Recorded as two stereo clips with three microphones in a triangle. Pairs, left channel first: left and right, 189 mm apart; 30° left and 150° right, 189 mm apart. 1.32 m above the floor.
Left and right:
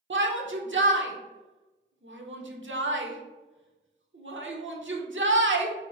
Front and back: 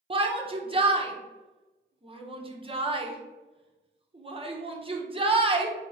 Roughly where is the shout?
Right.